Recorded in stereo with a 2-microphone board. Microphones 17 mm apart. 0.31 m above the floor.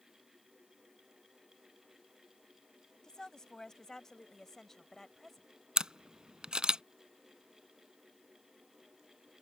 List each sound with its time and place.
3.0 s a woman speaking: 50° left (ahead or behind); by 5.5 s 20° left (ahead or behind)
5.8 s a camera shutter: 80° right